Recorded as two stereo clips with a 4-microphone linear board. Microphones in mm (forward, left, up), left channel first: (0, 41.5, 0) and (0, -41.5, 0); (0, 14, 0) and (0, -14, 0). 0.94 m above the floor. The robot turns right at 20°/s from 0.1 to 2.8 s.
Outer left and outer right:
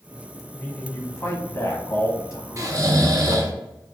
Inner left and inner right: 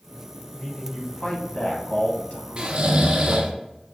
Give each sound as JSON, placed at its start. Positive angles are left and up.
{"t": 0.5, "sound": "a man speaking", "azimuth_deg": 35, "distance_m": 1.1}
{"t": 2.6, "sound": "snoring", "side_deg": -40, "distance_m": 0.7}